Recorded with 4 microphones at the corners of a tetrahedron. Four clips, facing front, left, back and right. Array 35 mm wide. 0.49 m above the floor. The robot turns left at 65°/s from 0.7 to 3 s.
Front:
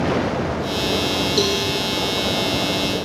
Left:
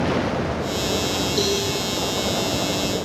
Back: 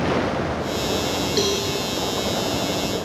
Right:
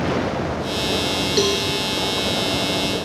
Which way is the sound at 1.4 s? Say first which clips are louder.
Right 3 dB, front 1 dB; 120° right.